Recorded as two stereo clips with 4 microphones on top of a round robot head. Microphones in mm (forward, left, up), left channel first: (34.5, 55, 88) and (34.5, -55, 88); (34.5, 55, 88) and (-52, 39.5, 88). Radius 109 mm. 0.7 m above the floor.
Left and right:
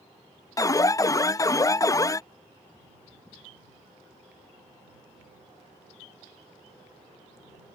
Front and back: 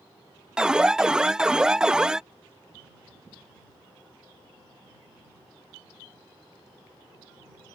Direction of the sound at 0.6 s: 115° left.